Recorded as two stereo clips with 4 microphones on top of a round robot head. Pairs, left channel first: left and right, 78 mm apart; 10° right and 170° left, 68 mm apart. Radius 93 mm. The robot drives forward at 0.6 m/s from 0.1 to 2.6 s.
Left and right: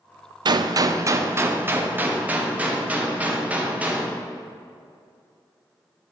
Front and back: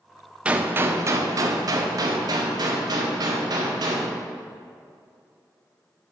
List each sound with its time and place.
0.5 s a gunshot: 110° right, 0.6 m; by 4.1 s 160° right, 1.6 m